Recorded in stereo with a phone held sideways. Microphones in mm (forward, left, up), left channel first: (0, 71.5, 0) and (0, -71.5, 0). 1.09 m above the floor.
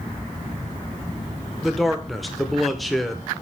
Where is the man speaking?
Centre (ahead or behind), 0.7 m.